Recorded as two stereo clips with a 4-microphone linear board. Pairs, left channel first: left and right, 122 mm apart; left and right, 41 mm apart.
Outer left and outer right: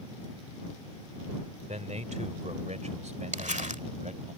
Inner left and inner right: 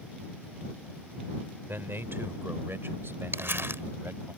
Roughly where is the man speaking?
Right.